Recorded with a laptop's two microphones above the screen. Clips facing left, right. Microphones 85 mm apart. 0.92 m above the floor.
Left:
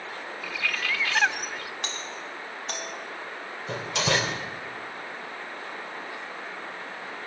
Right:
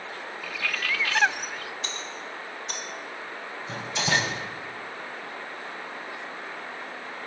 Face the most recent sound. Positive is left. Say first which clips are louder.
# left 1 dB
turn(degrees=80)